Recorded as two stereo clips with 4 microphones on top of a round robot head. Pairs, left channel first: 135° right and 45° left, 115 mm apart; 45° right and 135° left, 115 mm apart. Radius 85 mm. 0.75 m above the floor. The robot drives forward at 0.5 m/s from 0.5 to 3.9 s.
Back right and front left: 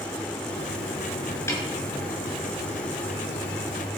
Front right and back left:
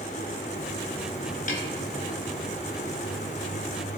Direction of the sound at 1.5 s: 65° right.